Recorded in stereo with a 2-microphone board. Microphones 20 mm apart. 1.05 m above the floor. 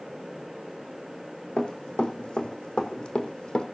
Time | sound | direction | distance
1.6 | running footsteps | 60° left (ahead or behind) | 3.5 m